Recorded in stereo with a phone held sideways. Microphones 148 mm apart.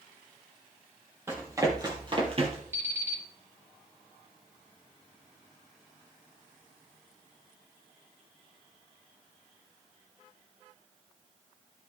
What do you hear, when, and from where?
1.3 s running footsteps: 15° right (ahead or behind), 3.5 m; by 2.6 s 45° right (ahead or behind), 2.5 m
2.7 s an alarm clock: 20° right (ahead or behind), 3.5 m